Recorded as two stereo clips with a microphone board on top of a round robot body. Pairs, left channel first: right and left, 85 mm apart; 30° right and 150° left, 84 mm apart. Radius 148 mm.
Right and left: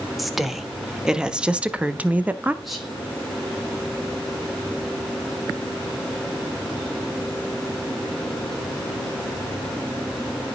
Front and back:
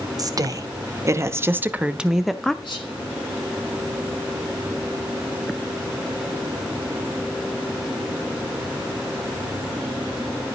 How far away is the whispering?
About 4.5 m.